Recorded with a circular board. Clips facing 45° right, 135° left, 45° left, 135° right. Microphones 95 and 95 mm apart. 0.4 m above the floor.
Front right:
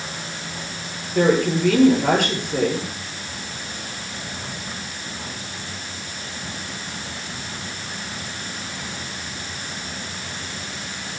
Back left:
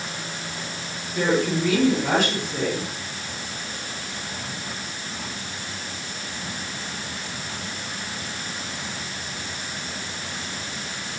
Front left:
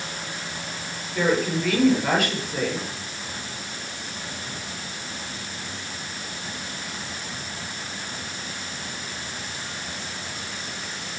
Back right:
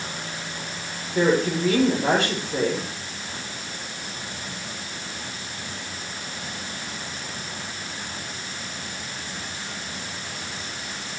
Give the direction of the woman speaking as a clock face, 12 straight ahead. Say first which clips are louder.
Front right 4 dB, back right 2 dB; 2 o'clock.